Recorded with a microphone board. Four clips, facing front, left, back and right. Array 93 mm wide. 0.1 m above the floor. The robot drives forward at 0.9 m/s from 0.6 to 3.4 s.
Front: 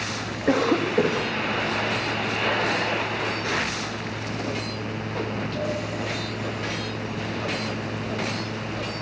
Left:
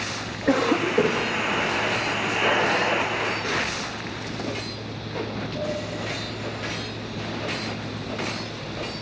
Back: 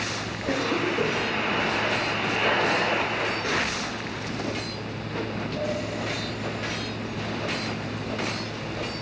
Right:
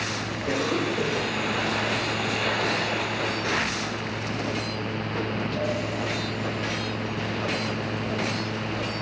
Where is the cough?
30° left, 7 m; by 1.3 s 35° left, 6.5 m.